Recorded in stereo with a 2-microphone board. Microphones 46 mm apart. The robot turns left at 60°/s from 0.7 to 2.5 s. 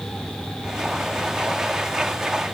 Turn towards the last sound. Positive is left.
No sound to turn to.